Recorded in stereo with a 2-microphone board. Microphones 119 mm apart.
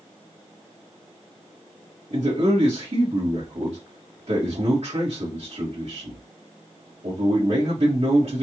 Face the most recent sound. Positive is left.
turn(degrees=-70)  # may be behind; listen again after turning